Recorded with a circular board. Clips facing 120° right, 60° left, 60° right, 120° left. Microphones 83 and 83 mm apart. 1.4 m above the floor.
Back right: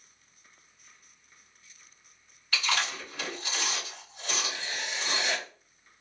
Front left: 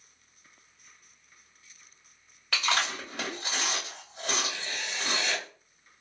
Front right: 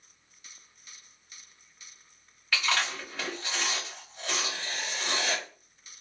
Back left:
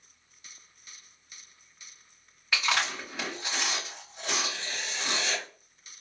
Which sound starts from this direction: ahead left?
Chewing, at 2.5 s.